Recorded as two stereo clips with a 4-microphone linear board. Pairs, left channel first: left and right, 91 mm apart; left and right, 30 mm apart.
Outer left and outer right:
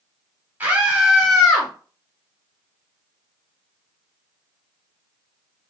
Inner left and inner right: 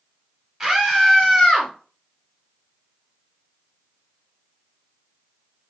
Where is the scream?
20° right (ahead or behind), 1.0 m; by 1.7 s 5° left (ahead or behind), 1.2 m.